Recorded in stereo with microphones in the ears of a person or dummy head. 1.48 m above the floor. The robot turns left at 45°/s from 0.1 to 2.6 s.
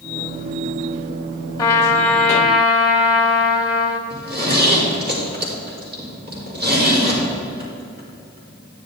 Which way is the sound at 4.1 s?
55° right (ahead or behind).